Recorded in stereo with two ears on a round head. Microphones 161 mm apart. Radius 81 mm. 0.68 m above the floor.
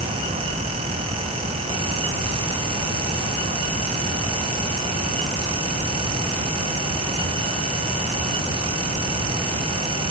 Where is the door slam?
I don't hear a door slam.